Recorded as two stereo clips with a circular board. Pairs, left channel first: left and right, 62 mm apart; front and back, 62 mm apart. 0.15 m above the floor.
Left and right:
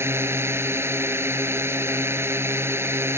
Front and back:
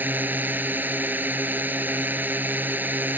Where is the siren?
I don't hear a siren.